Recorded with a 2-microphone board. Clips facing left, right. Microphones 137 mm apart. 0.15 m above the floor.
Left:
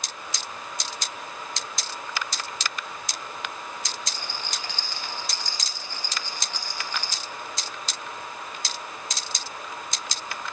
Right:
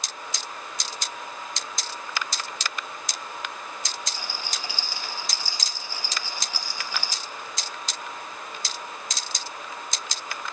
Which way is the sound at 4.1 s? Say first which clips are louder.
Even; 5° right (ahead or behind).